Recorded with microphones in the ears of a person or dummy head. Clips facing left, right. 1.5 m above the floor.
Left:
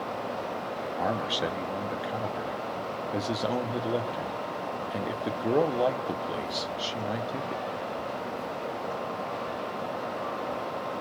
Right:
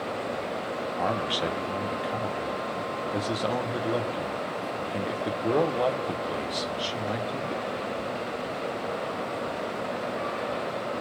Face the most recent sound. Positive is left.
turn(degrees=0)  # may be behind; listen again after turning